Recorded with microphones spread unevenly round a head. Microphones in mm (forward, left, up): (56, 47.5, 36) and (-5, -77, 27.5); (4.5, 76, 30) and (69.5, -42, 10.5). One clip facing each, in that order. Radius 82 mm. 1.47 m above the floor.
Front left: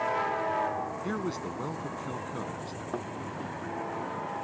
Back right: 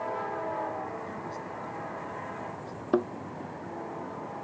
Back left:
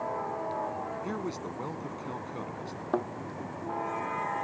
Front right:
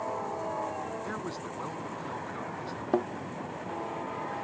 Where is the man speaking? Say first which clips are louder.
Front left 5 dB, back left 2 dB; 50° left.